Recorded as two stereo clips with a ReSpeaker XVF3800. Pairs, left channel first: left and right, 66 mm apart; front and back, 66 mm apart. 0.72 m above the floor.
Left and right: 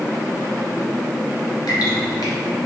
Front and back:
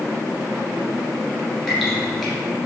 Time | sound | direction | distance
1.7 | dripping | 85° left | 1.9 m